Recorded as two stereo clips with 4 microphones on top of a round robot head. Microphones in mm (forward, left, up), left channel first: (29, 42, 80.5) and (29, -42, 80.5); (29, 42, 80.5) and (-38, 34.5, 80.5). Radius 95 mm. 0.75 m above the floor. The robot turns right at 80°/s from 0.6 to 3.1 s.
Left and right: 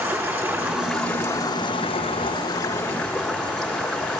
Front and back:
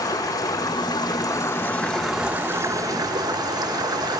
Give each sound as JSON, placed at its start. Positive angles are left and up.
{"t": 0.0, "sound": "running water", "azimuth_deg": -25, "distance_m": 6.5}